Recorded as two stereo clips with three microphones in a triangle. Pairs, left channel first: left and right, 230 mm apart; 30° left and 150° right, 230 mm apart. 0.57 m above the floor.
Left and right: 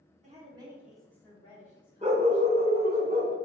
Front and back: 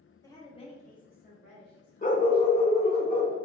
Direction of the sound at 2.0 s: 30° right.